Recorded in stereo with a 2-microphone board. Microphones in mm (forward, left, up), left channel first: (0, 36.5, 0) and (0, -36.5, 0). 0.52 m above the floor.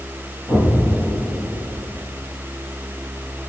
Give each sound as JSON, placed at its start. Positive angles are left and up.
{"t": 0.5, "sound": "an explosion", "side_deg": 40, "distance_m": 6.0}